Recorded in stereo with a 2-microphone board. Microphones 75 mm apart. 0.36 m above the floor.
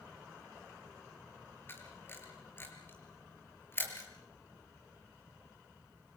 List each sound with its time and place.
1.7 s a camera shutter: 30° left (ahead or behind), 4 m